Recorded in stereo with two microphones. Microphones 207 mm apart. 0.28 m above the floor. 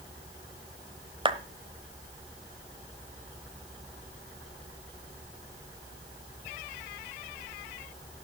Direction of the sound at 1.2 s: 25° right (ahead or behind).